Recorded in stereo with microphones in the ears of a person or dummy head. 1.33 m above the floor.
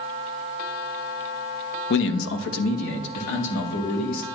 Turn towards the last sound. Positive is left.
turn(degrees=70)  # may be behind; listen again after turning